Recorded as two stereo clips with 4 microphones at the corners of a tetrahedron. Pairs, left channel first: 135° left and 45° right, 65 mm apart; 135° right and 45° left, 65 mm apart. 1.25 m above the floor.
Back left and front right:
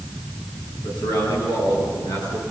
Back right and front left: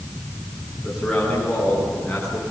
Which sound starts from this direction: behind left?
A man speaking, at 0.8 s.